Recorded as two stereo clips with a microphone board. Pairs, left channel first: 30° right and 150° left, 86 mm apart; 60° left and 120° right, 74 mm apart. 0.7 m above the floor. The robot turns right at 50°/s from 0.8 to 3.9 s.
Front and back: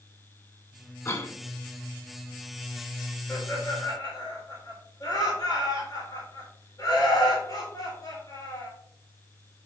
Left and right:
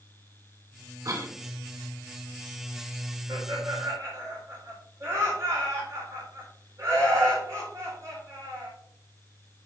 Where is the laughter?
110° right, 4 m; by 8.7 s 80° right, 4 m.